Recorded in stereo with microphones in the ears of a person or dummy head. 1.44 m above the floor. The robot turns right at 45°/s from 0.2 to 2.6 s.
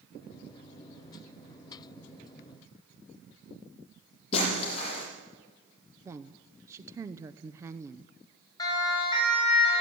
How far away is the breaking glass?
About 8.5 m.